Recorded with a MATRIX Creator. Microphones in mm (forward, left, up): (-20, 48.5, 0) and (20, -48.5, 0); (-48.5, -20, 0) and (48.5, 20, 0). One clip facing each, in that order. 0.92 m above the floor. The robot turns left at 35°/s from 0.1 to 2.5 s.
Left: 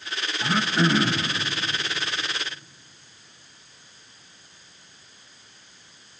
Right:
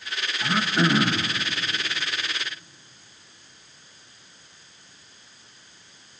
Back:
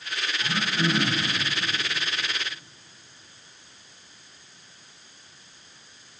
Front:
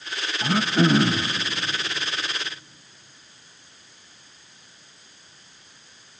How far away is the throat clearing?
About 0.7 m.